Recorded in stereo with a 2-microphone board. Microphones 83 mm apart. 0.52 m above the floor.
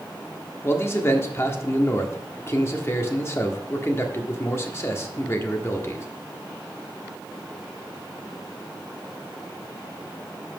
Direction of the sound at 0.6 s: 30° left (ahead or behind).